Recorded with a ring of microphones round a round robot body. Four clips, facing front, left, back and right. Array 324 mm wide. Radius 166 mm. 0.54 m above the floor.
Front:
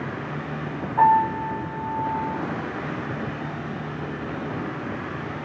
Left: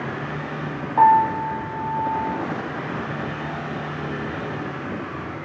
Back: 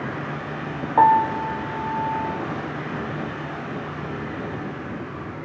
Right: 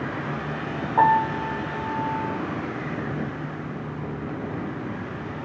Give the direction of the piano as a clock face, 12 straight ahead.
6 o'clock.